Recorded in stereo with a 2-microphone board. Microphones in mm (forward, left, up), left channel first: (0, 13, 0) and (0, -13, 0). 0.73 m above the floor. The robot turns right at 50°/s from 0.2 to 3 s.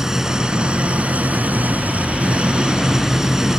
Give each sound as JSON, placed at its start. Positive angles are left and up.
{"t": 0.0, "sound": "an engine running", "azimuth_deg": -160}